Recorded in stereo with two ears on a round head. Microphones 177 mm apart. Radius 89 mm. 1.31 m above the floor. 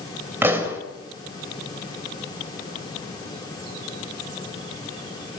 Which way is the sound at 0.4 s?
10° right (ahead or behind).